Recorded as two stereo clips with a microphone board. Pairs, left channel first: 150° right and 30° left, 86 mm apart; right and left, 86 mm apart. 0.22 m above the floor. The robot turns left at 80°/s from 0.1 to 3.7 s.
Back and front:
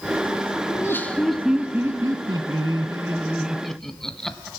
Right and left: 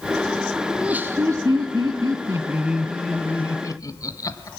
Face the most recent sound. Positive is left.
turn(degrees=-65)